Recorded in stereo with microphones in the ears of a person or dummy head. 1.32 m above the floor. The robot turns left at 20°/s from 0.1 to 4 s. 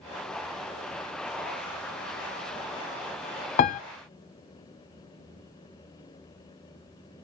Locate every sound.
3.6 s a piano: 40° left (ahead or behind), 0.5 m; by 3.8 s 45° left (ahead or behind), 0.5 m